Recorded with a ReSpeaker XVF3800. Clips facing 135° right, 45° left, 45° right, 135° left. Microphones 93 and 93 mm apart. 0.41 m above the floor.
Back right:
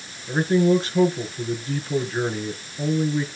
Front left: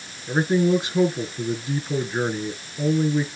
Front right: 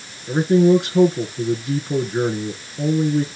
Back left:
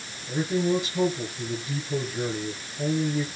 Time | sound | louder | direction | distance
0.3 | a man speaking | back right 1 dB, front right 10 dB | 30° right | 5 m